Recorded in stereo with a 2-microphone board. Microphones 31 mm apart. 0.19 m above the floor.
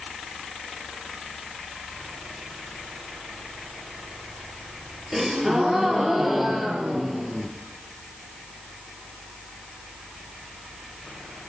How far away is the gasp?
About 3 m.